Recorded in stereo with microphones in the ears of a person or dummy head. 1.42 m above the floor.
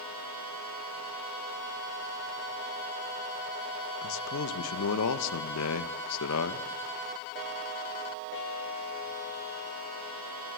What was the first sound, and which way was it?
A man speaking, 65° left (ahead or behind).